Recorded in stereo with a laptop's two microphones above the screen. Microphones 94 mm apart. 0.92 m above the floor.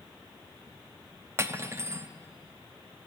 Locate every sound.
1.4 s cutlery clinking: 30° right (ahead or behind), 0.6 m